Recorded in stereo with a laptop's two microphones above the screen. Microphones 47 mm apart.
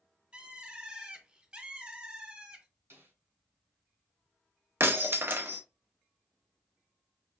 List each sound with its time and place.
0.3 s a bird: 25° right (ahead or behind), 0.8 m
2.9 s a snare drum: 65° right (ahead or behind), 2.5 m
4.8 s breaking glass: 55° right (ahead or behind), 0.7 m